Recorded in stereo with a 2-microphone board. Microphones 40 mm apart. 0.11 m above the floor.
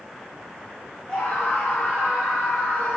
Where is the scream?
30° left (ahead or behind), 6 m; by 3.0 s 35° left (ahead or behind), 5 m.